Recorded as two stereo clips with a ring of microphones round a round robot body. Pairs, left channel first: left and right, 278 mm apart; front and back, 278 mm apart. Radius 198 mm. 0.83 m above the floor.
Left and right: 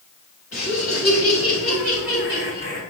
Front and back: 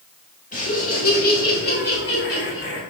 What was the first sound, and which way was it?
Laughter, 55° left.